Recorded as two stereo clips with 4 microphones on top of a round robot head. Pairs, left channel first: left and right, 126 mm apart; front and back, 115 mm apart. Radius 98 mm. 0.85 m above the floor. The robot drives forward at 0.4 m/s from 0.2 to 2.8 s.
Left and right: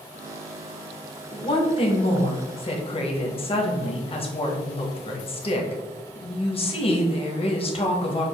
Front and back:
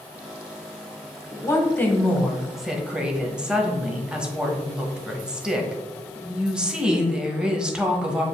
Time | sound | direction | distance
1.3 | a woman speaking | 55° left | 1.1 m